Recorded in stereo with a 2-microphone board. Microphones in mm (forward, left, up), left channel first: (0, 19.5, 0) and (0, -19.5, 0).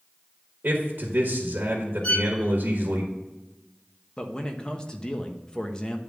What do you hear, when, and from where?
0.6 s a man speaking: 65° right (ahead or behind), 1.3 m
2.0 s a violin: 30° left (ahead or behind), 0.9 m
4.2 s a man speaking: 20° left (ahead or behind), 0.9 m